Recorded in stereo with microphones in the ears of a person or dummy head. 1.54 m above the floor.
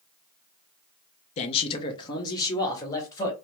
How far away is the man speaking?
About 0.6 m.